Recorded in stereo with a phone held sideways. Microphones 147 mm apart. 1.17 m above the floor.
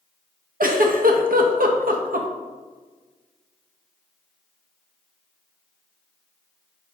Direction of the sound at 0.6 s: 70° right (ahead or behind).